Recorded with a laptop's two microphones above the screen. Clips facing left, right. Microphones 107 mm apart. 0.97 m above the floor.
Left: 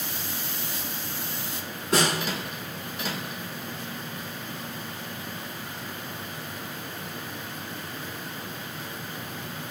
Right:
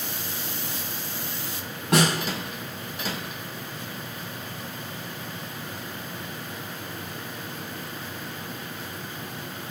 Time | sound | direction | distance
1.9 | a snare drum | 70° right (ahead or behind) | 4.5 m